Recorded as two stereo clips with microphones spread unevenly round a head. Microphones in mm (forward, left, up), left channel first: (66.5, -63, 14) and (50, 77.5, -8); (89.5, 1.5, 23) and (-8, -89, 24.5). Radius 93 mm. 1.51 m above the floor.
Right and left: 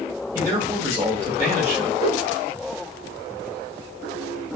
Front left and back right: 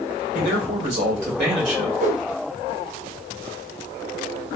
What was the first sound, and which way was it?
A man speaking, 170° left.